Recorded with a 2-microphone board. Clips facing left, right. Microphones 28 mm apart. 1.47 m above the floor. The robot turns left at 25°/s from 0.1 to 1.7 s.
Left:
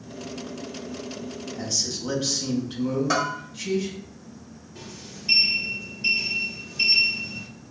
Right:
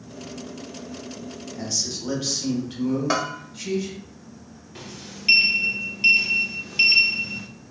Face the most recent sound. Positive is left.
turn(degrees=-65)  # may be behind; listen again after turning